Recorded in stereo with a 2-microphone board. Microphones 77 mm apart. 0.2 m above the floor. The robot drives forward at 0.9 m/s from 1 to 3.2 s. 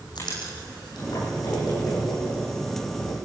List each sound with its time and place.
0.1 s writing: 75° left (ahead or behind), 10 m; by 3.2 s 65° left (ahead or behind), 10.5 m